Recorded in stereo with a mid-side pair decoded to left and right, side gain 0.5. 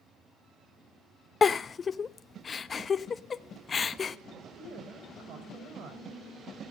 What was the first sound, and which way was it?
A giggle, 40° left.